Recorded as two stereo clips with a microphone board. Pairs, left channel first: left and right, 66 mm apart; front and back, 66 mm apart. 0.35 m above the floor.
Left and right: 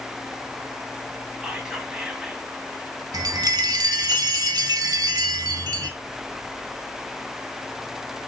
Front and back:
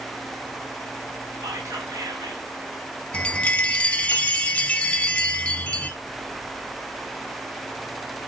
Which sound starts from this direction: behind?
Whispering, at 1.4 s.